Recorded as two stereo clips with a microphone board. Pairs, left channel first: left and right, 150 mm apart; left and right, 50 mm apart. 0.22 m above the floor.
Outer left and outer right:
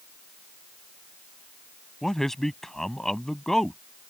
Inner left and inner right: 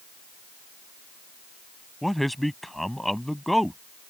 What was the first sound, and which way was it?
A man speaking, centre (ahead or behind).